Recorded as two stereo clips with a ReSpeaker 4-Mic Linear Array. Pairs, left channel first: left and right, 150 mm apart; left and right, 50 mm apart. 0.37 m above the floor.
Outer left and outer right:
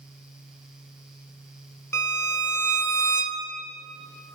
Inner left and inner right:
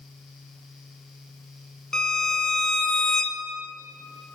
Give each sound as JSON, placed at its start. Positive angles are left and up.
{"t": 1.9, "sound": "a violin", "side_deg": 15, "distance_m": 0.7}